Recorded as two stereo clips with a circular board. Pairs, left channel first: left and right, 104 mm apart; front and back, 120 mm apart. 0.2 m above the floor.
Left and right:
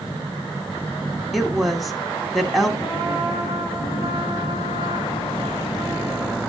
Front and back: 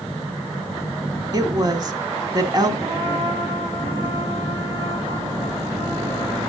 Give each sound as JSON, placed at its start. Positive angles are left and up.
{"t": 1.3, "sound": "a woman speaking", "azimuth_deg": 180, "distance_m": 1.2}
{"t": 2.8, "sound": "a trumpet", "azimuth_deg": 125, "distance_m": 5.0}